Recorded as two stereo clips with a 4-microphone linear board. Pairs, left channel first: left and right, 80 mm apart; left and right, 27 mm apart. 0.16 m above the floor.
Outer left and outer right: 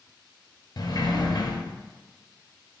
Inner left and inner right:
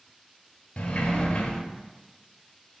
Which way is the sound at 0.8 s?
60° left (ahead or behind).